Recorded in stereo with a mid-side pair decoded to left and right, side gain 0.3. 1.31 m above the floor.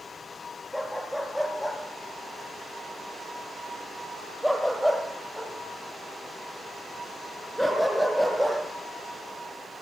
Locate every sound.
0.7 s a dog barking: 15° right, 9.5 m; by 8.6 s 5° right, 14.5 m